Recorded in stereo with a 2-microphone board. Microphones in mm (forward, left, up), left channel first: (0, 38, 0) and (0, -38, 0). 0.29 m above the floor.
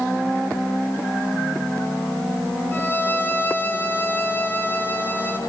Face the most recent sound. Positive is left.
turn(degrees=30)  # may be behind; listen again after turning